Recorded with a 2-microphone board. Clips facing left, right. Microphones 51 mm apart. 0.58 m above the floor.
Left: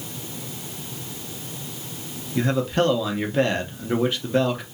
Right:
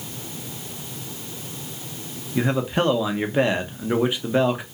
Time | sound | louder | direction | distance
2.4 | a man speaking | even | 15° right (ahead or behind) | 0.6 m